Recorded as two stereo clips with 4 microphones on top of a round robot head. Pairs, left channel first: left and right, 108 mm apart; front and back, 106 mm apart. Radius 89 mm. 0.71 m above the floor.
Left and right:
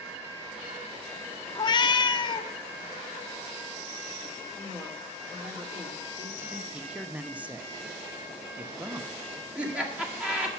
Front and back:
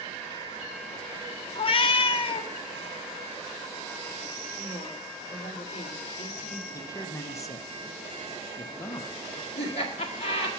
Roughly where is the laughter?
Ahead.